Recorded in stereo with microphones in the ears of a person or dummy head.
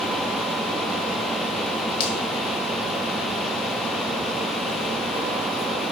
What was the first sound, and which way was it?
A finger snap, 30° left (ahead or behind).